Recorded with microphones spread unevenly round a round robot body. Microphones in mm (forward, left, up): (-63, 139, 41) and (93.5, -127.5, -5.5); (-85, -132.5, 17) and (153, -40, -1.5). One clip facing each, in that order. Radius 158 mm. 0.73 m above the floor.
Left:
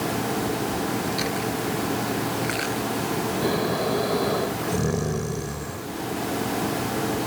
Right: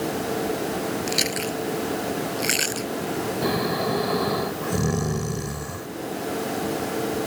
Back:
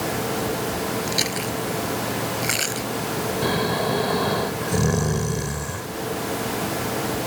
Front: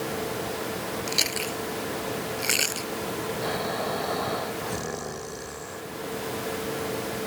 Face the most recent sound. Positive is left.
turn(degrees=-140)